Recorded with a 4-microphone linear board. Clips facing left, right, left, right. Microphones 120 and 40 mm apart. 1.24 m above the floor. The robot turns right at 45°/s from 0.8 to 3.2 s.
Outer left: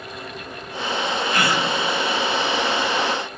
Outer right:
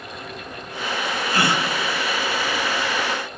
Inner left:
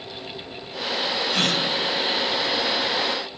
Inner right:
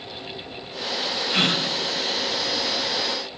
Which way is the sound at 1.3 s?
35° right (ahead or behind).